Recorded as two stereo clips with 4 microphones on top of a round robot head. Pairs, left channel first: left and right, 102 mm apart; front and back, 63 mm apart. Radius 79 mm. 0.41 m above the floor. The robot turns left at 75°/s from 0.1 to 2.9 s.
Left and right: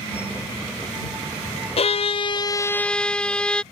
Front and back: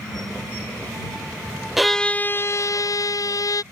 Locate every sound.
1.8 s a violin: 95° left; by 3.6 s 10° left